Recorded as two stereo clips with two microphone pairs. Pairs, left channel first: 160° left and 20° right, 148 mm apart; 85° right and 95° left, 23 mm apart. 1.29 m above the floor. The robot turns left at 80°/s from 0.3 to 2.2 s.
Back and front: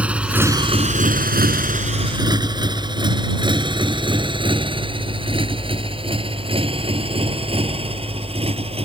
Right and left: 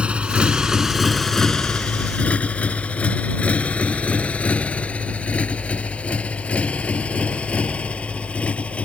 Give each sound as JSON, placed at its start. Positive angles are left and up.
{"t": 0.0, "sound": "a motorcycle", "azimuth_deg": 60}